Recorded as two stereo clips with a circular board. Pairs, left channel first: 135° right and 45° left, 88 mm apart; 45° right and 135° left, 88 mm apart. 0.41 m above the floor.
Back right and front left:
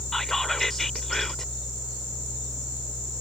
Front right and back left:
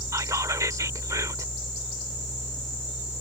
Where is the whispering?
140° left.